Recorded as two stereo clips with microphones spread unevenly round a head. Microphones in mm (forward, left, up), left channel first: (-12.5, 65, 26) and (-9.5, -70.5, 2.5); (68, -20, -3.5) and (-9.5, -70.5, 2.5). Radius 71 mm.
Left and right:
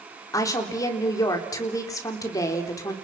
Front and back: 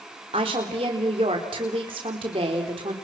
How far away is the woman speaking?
About 3.5 m.